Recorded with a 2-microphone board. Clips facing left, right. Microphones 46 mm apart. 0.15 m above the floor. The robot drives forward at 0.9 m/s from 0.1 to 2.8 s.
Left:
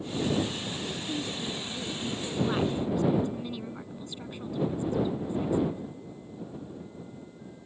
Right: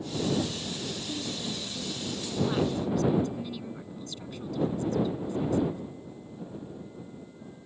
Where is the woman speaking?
10° left (ahead or behind); by 5.8 s 20° left (ahead or behind).